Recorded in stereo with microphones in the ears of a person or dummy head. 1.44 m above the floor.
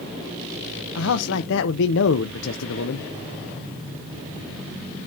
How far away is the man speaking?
About 0.8 m.